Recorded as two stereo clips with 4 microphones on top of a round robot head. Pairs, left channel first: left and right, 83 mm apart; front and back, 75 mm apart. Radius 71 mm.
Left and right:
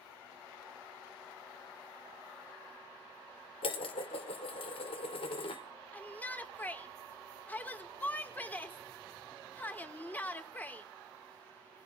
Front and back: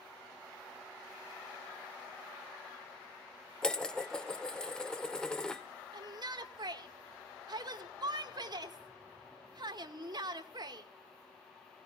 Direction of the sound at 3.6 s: 80° left.